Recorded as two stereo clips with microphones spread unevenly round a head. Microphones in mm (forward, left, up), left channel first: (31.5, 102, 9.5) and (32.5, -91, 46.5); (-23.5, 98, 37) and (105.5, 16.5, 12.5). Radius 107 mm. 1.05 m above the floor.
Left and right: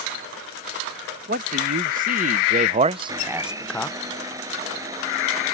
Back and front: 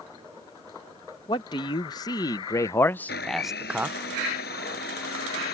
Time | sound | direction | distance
1.3 | a man speaking | 145° right | ?
3.1 | a blender | 165° right | ?